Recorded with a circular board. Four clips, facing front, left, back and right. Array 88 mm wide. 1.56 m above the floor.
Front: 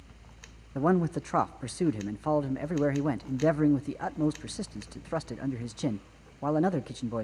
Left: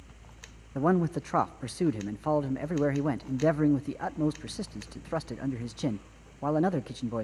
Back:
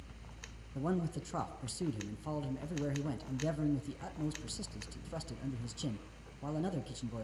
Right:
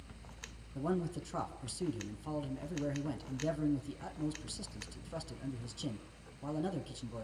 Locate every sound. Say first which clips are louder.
0.8 s a man speaking: left 10 dB, front 10 dB; 50° left, 0.7 m